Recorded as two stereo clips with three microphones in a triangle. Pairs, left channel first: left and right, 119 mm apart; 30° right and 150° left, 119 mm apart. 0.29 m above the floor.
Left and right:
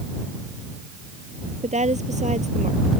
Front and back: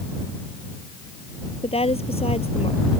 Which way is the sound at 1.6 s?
65° right.